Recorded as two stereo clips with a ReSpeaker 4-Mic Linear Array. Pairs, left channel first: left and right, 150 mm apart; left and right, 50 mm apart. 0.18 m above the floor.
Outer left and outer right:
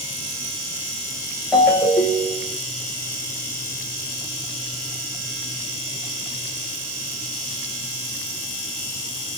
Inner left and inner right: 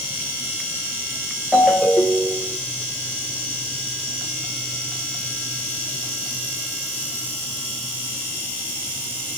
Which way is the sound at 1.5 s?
5° left (ahead or behind).